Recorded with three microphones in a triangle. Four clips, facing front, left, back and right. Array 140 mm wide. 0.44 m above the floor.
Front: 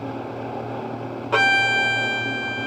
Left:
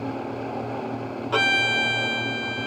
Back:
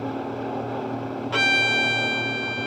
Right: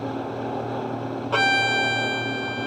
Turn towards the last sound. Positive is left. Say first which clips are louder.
# right 2 dB, front 5 dB
turn(degrees=5)